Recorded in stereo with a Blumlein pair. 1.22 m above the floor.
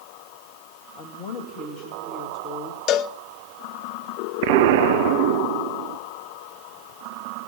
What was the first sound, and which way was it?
A woman speaking, 40° left.